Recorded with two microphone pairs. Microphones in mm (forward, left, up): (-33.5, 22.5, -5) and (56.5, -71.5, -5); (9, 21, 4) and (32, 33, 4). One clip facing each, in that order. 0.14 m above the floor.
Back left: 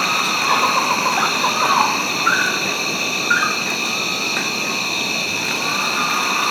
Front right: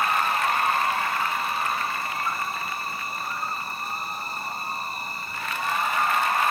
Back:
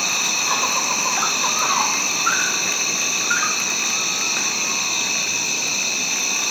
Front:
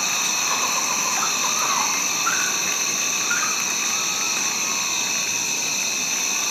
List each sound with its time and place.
0.0 s an insect: 130° left